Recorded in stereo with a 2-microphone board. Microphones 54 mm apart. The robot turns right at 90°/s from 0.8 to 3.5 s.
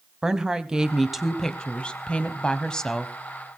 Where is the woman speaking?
10° right (ahead or behind), 1.6 m; by 3.1 s centre (ahead or behind), 1.6 m.